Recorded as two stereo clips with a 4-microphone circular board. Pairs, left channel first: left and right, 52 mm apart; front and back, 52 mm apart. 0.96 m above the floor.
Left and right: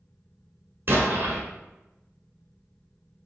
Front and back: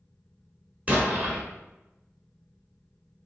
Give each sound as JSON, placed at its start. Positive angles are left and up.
{"t": 0.9, "sound": "an explosion", "azimuth_deg": -120, "distance_m": 1.1}